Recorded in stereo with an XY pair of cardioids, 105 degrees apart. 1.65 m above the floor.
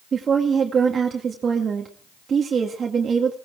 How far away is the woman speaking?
About 2 m.